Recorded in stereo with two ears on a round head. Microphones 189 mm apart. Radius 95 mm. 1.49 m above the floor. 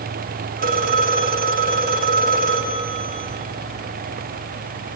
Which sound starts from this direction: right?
A phone ringing, at 0.6 s.